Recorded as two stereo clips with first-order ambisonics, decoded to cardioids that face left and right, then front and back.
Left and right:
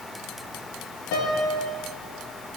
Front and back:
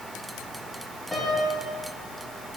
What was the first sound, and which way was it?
A piano, 85° left.